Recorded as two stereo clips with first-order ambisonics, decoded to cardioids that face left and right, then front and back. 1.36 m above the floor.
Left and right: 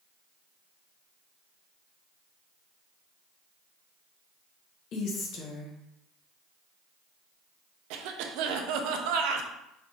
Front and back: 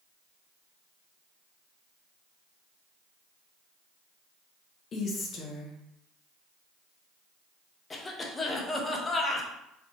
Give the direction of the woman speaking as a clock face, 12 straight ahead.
10 o'clock.